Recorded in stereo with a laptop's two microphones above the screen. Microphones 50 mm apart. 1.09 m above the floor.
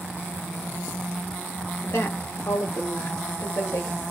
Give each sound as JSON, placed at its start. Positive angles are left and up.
{"t": 1.8, "sound": "a woman speaking", "side_deg": 60, "distance_m": 0.8}